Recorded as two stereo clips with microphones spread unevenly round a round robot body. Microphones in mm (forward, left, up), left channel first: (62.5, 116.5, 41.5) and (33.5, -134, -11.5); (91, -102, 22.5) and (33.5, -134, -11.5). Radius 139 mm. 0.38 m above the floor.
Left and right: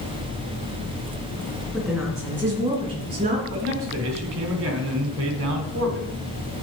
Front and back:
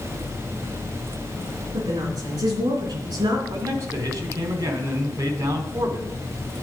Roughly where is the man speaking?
Behind right.